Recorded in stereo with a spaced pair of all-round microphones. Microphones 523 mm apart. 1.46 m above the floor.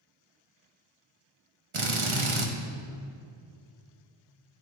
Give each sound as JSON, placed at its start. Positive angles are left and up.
{"t": 1.7, "sound": "a drill", "side_deg": -65, "distance_m": 1.1}